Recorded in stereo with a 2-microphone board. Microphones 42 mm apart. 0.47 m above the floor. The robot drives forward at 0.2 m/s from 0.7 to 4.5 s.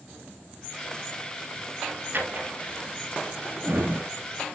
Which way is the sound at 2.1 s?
55° right (ahead or behind).